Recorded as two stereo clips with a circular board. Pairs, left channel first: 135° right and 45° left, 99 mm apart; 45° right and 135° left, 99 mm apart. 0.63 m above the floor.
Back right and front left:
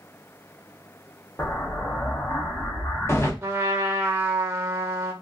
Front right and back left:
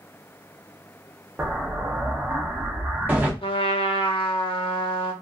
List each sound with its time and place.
1.4 s an explosion: 170° right, 0.7 m
3.4 s a trumpet: 20° right, 0.6 m